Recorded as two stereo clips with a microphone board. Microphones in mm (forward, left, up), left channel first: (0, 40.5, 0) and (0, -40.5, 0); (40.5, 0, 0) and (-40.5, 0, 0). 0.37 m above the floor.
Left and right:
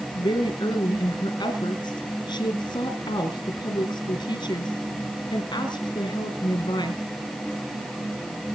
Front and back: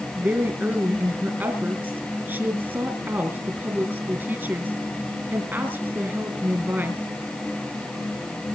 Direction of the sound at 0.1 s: 115° left.